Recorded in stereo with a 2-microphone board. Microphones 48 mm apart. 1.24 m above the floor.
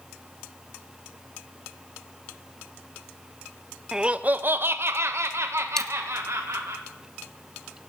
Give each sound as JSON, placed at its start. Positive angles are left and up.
{"t": 3.9, "sound": "laughter", "side_deg": -15, "distance_m": 0.6}
{"t": 5.8, "sound": "a dropped coin", "side_deg": 10, "distance_m": 0.5}